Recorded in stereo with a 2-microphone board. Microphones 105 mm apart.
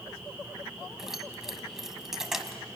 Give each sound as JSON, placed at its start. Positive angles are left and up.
{"t": 1.0, "sound": "keys jangling", "side_deg": -5, "distance_m": 1.5}